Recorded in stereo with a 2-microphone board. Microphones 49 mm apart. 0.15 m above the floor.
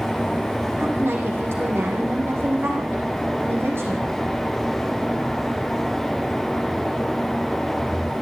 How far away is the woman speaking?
About 7 m.